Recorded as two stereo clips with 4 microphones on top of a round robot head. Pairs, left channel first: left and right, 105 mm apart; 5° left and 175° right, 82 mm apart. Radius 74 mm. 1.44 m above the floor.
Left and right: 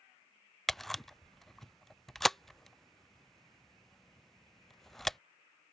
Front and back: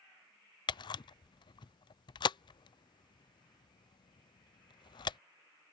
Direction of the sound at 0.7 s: Straight ahead.